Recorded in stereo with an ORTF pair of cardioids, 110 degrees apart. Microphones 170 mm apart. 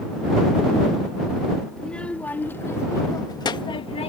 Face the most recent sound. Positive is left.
turn(degrees=40)